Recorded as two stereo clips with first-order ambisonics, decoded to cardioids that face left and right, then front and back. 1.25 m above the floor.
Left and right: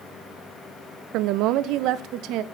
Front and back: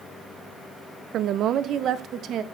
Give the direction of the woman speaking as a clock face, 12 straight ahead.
4 o'clock.